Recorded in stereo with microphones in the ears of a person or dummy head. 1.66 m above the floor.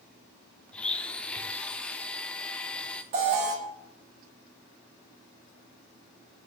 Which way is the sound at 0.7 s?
5° left (ahead or behind).